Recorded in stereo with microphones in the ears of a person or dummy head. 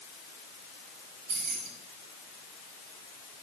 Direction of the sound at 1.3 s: 65° right (ahead or behind).